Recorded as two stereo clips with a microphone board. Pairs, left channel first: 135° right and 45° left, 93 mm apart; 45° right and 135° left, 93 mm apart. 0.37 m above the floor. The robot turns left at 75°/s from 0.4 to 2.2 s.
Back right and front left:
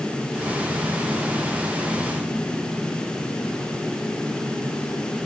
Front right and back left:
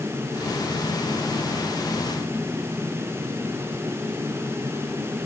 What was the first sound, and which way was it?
Only background noise.